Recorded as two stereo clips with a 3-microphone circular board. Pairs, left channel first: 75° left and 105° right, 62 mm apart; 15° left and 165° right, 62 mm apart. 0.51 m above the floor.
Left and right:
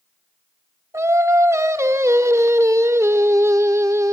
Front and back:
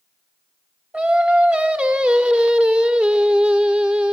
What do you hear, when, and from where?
0.9 s singing: 100° right, 1.0 m